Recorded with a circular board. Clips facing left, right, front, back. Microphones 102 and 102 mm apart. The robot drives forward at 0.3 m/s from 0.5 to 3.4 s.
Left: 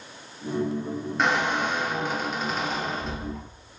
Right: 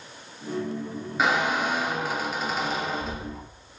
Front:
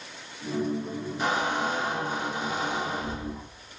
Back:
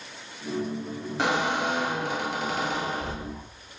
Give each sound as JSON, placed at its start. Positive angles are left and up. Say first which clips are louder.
{"t": 1.2, "sound": "a squeak", "louder": "right 1 dB, back 2 dB", "azimuth_deg": -175, "distance_m": 1.1}